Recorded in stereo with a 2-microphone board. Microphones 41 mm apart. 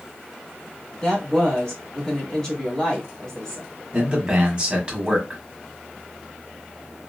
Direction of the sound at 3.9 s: 25° right (ahead or behind).